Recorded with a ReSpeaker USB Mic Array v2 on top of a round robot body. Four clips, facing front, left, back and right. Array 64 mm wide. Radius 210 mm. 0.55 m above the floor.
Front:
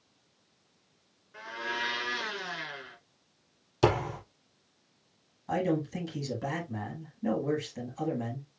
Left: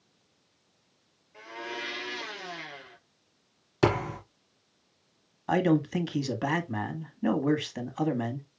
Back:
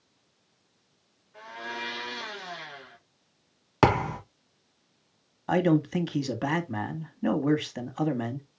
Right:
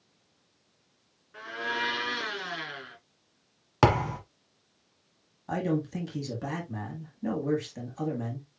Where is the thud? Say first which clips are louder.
Right 2 dB, back 4 dB; 145° right, 1.4 m.